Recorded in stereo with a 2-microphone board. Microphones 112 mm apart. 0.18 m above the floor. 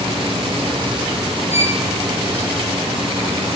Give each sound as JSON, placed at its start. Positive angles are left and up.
{"t": 1.5, "sound": "a violin", "side_deg": -20, "distance_m": 5.0}